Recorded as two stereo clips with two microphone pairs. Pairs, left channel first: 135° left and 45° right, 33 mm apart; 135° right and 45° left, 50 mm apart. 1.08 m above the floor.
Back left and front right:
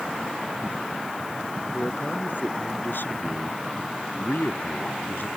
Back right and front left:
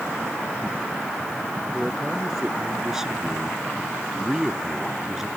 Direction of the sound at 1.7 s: 125° left.